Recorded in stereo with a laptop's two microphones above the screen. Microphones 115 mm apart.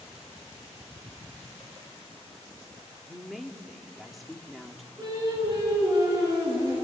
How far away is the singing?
About 10 m.